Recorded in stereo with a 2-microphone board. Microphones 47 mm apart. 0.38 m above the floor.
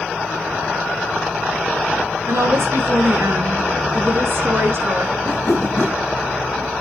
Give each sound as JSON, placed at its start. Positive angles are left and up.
{"t": 2.3, "sound": "a woman speaking", "side_deg": -70, "distance_m": 6.0}
{"t": 5.2, "sound": "a whoosh", "side_deg": 60, "distance_m": 3.5}